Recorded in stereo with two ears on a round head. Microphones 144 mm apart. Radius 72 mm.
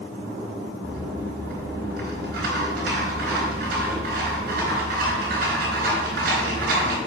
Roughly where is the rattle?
Right.